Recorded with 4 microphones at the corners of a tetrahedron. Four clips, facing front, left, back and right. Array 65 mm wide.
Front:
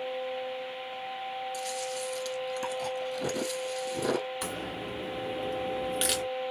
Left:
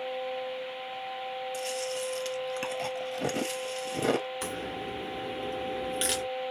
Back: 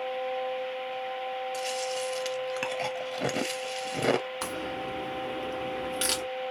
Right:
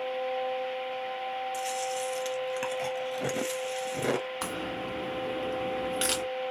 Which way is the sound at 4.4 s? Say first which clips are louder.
Right 1 dB, back 2 dB; 120° right.